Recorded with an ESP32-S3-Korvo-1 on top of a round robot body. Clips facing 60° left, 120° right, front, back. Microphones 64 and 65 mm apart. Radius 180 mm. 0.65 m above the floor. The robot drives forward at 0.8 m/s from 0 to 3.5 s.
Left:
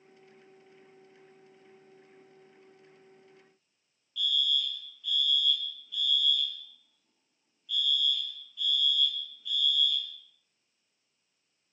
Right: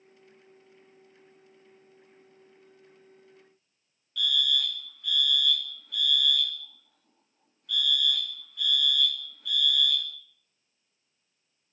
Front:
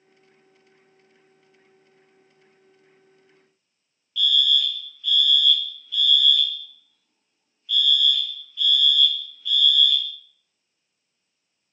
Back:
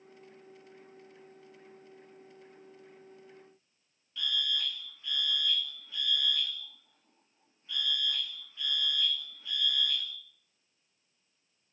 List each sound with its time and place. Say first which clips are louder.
4.2 s a fire alarm: right 3 dB, front 11 dB; 125° right, 3 m